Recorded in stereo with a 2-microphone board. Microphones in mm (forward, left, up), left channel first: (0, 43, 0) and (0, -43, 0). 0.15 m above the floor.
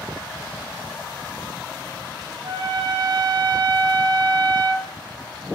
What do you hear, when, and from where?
2.4 s a trumpet: 75° right (ahead or behind), 0.5 m